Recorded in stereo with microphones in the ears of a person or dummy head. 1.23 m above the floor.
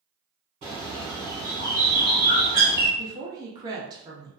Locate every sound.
0.6 s a bird: 30° right (ahead or behind), 1.5 m
3.0 s a woman speaking: 20° right (ahead or behind), 0.5 m